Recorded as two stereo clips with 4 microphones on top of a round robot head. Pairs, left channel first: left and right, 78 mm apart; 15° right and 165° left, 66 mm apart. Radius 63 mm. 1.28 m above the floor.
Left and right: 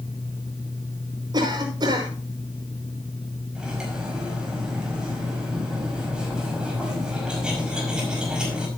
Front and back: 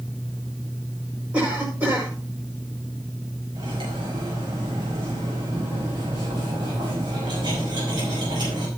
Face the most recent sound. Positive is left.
turn(degrees=-170)